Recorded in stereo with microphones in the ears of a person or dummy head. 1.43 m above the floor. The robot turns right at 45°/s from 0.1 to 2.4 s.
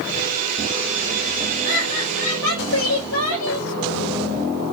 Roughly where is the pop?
I don't hear a pop.